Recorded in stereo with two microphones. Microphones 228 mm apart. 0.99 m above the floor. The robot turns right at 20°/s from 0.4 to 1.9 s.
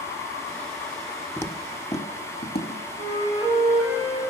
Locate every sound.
1.4 s footsteps: 10° left (ahead or behind), 1.1 m; by 2.8 s 50° left (ahead or behind), 1.5 m
3.0 s a flute: 25° left (ahead or behind), 3.5 m